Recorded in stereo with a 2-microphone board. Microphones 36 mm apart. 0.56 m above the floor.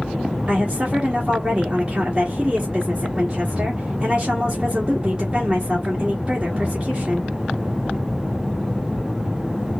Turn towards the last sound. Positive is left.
turn(degrees=-25)  # may be behind; listen again after turning